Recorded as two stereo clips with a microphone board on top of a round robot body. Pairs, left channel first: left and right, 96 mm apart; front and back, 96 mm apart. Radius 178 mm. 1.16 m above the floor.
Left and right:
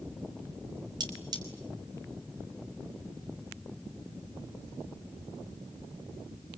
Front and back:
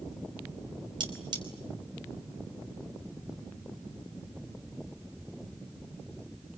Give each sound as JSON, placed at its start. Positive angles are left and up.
{"t": 1.0, "sound": "cutlery clinking", "azimuth_deg": -140, "distance_m": 3.5}